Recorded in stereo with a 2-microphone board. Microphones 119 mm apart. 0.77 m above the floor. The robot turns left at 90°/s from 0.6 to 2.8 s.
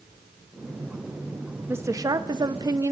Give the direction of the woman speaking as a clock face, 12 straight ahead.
1 o'clock.